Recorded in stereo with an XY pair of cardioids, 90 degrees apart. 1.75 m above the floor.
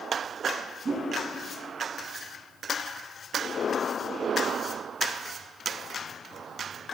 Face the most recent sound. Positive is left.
turn(degrees=-45)